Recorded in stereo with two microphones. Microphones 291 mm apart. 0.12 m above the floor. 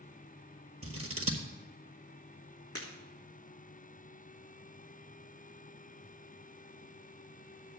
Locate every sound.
0.8 s scissors: 50° right (ahead or behind), 1.5 m
2.8 s breaking glass: 55° left (ahead or behind), 4 m